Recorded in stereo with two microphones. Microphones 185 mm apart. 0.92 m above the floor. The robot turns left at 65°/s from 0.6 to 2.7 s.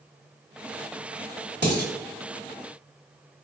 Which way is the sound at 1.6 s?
70° right (ahead or behind).